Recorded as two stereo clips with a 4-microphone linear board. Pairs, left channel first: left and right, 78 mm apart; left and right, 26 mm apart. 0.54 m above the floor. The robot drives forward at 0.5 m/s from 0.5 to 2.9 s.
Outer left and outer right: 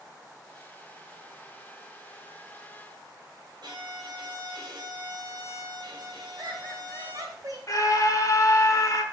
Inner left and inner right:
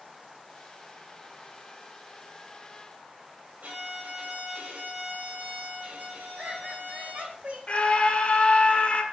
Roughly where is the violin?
Right.